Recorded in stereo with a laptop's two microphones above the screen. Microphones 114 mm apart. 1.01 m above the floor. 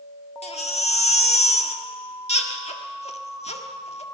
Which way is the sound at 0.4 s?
70° left (ahead or behind).